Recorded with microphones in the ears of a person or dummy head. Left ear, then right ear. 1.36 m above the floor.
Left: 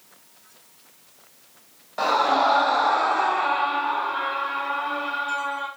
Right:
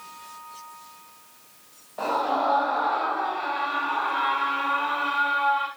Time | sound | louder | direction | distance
2.0 | a scream | left 5 dB | 60° left (ahead or behind) | 1.3 m